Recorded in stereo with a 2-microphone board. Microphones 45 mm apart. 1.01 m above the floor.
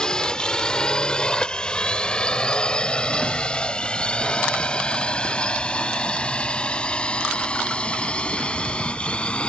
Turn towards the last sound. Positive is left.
turn(degrees=25)  # may be behind; listen again after turning